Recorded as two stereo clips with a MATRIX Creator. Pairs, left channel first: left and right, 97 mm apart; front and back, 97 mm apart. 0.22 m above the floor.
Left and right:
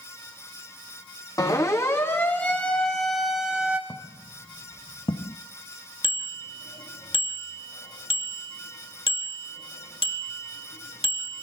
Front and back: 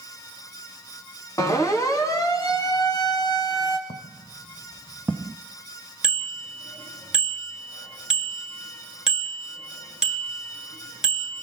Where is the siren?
50° left, 3 m; by 3.8 s 15° right, 2.5 m.